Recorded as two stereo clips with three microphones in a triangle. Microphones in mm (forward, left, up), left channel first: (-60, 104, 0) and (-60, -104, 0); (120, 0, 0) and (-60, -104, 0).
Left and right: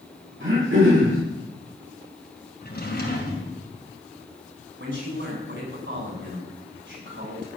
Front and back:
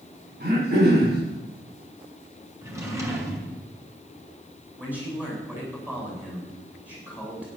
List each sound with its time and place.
0.4 s throat clearing: 110° right, 7.5 m
2.6 s a drawer: 135° left, 3.5 m
4.8 s a man speaking: 65° right, 8 m